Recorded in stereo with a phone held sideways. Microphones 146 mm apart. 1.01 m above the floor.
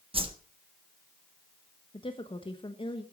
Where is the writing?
I don't hear writing.